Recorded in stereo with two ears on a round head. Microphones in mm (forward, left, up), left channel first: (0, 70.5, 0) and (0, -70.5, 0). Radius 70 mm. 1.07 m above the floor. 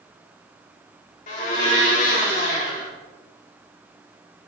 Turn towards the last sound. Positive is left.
turn(degrees=55)  # may be behind; listen again after turning